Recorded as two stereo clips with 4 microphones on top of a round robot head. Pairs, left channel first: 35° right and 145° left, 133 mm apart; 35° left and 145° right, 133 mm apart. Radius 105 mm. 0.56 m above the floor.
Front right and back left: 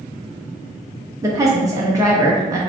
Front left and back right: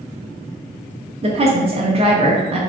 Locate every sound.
1.2 s a woman speaking: 160° right, 1.0 m